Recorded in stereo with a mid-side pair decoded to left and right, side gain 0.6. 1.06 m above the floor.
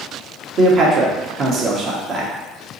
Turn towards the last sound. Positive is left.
turn(degrees=-45)